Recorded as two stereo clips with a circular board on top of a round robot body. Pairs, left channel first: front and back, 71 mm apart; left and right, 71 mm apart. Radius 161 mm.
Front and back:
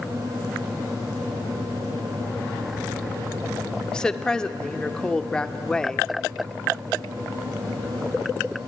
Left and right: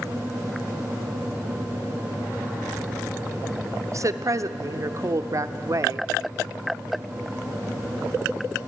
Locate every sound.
3.9 s a woman speaking: 75° right, 1.1 m